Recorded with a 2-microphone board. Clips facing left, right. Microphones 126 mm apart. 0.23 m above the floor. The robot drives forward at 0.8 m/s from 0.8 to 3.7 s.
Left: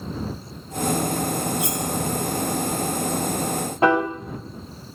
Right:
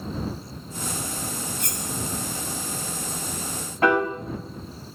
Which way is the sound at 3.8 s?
25° left (ahead or behind).